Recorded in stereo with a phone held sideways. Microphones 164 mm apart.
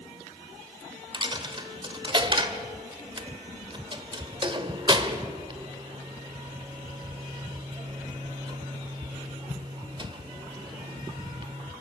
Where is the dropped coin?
30° right (ahead or behind), 1.4 m.